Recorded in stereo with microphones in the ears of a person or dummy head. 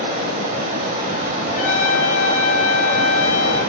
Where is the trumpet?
45° left (ahead or behind), 6.5 m.